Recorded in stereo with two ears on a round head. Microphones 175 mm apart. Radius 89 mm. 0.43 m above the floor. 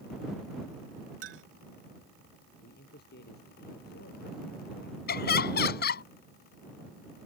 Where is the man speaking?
55° left (ahead or behind).